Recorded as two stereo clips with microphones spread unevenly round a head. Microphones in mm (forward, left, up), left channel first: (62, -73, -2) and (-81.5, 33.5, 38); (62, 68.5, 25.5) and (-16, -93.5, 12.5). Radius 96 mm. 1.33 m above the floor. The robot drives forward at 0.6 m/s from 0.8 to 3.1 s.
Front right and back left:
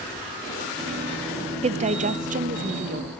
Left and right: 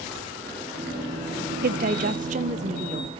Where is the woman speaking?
165° right, 0.6 m; by 3.1 s 175° right, 1.4 m.